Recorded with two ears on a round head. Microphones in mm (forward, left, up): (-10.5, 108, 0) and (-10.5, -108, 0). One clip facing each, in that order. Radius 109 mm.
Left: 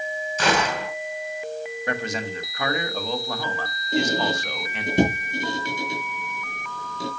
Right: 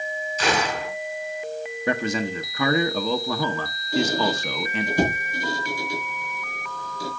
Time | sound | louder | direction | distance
0.4 | a gunshot | left 1 dB | 40° left (ahead or behind) | 5 m
1.9 | a man speaking | right 5 dB | 75° right (ahead or behind) | 1.3 m
3.9 | a squeak | right 1 dB | 20° left (ahead or behind) | 3.5 m